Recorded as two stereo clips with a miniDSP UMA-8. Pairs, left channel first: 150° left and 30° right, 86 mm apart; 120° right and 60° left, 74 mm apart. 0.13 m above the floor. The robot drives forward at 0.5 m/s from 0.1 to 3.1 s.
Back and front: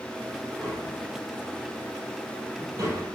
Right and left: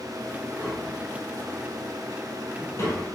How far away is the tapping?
About 3 m.